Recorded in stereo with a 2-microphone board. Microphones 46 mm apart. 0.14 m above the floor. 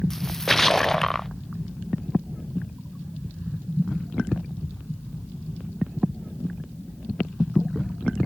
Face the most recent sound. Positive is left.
turn(degrees=10)  # may be behind; listen again after turning